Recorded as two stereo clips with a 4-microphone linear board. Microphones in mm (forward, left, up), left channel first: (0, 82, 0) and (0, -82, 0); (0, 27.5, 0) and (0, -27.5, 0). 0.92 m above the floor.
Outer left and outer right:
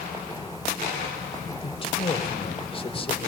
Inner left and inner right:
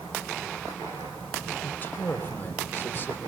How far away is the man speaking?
About 3 m.